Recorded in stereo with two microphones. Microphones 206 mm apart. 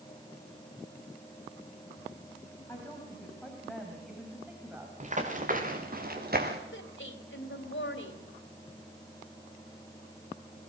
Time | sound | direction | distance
2.7 | a woman speaking | 10° left (ahead or behind) | 4.5 m
5.0 | running footsteps | 35° right (ahead or behind) | 4 m
6.7 | a woman speaking | 70° left (ahead or behind) | 3 m